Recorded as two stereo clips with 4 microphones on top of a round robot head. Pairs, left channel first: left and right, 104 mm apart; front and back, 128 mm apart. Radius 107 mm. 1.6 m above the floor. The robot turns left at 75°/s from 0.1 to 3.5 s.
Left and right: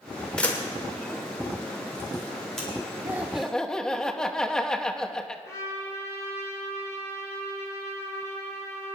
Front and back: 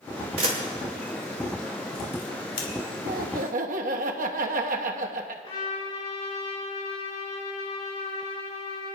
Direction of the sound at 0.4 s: 170° left.